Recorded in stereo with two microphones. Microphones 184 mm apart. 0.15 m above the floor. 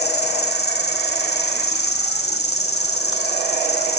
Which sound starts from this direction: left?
An insect, at 0.0 s.